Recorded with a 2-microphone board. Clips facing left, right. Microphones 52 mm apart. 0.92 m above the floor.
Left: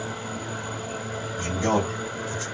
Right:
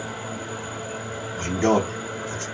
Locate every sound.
1.4 s a man speaking: 45° right (ahead or behind), 1.1 m